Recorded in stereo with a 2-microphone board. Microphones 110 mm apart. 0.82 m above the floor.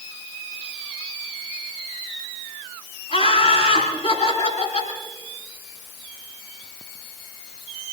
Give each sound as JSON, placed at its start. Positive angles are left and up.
{"t": 3.1, "sound": "laughter", "side_deg": 65, "distance_m": 9.0}